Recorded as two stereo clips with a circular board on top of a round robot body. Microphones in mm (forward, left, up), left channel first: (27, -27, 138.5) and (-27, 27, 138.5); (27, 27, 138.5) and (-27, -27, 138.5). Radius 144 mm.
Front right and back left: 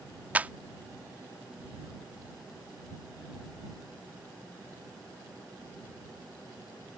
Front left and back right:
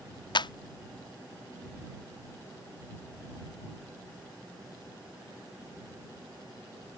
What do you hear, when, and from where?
0.3 s a clap: 65° left